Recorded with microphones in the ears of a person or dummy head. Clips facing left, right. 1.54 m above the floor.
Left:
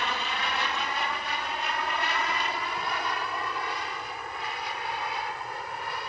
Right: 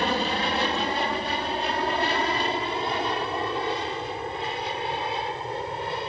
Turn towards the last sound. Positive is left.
turn(degrees=-25)  # may be behind; listen again after turning